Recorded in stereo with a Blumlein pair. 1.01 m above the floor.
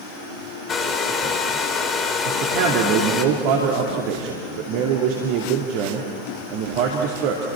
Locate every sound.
0.7 s a hair dryer: 20° left, 2.5 m
2.2 s a man speaking: 45° right, 2.5 m